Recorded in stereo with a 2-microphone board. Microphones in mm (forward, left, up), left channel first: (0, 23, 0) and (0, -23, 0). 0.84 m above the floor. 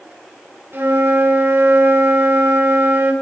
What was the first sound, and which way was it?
A flute, 65° right (ahead or behind).